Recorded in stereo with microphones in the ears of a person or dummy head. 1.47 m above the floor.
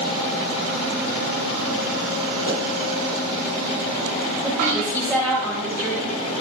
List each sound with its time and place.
2.5 s a pop: 70° left (ahead or behind), 5.5 m
4.4 s a woman speaking: 5° right (ahead or behind), 4 m